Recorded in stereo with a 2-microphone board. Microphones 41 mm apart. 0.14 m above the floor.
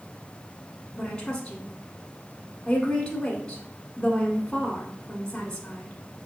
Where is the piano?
I don't hear a piano.